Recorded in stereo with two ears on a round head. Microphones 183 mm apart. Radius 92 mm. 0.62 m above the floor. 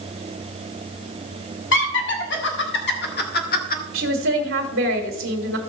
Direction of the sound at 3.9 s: 60° right (ahead or behind).